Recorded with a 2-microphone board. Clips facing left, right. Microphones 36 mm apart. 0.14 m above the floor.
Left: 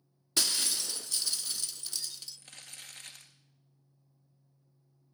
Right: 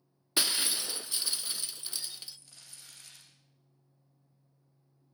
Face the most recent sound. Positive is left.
turn(degrees=55)  # may be behind; listen again after turning